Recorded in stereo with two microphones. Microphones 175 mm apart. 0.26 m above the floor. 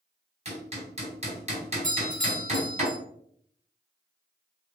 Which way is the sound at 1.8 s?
45° right (ahead or behind).